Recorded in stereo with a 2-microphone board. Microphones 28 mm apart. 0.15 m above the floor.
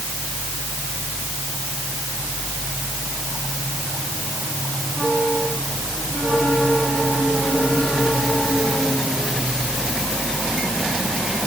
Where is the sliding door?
No sliding door in this recording.